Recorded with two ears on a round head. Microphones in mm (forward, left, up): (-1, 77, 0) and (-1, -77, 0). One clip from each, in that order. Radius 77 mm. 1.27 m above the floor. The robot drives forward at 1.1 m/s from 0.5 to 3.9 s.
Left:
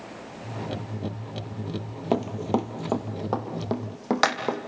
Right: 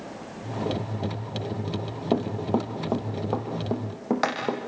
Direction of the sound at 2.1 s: 35° left (ahead or behind).